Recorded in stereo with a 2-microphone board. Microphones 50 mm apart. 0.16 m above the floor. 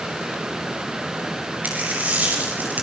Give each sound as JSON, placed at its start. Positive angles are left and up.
{"t": 1.6, "sound": "a dropped coin", "side_deg": -35, "distance_m": 6.5}